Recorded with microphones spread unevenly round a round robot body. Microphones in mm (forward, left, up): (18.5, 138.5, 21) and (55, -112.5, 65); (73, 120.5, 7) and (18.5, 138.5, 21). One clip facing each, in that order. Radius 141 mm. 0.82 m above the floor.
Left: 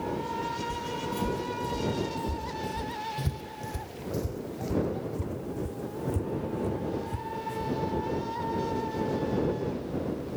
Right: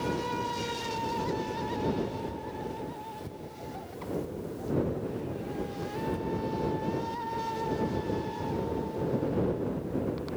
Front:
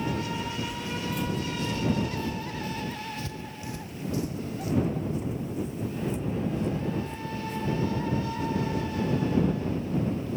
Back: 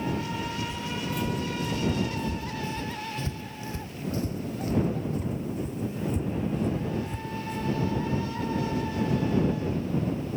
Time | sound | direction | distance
0.7 | footsteps | 70° left | ?